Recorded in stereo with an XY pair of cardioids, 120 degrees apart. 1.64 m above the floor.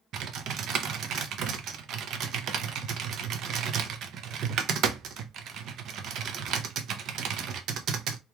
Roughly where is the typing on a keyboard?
Ahead right.